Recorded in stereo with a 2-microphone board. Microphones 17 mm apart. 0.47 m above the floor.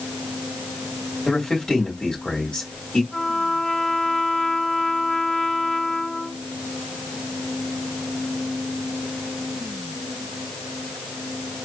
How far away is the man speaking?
About 2.5 m.